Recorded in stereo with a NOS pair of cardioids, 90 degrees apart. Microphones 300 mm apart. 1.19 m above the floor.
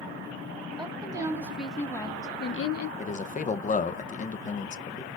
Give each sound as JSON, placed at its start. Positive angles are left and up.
{"t": 0.8, "sound": "a woman speaking", "azimuth_deg": -15, "distance_m": 2.5}
{"t": 3.0, "sound": "a man speaking", "azimuth_deg": 25, "distance_m": 0.7}